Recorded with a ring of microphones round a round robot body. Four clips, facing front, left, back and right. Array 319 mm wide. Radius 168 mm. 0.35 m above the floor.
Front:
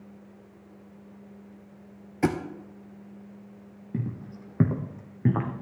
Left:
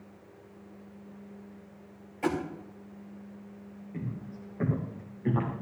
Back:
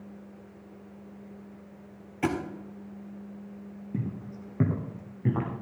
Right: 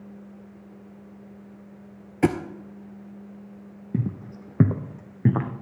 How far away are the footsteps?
About 1.3 m.